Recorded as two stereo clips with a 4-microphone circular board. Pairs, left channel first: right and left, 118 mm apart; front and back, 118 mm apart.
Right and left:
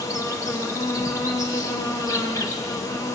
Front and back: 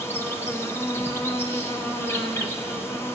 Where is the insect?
55° right, 1.0 m.